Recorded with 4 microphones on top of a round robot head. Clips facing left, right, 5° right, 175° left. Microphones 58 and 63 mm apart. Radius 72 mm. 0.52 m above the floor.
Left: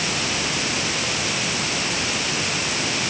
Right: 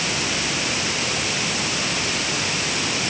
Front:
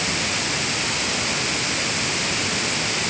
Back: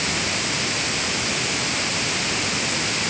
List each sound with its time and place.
Only background noise.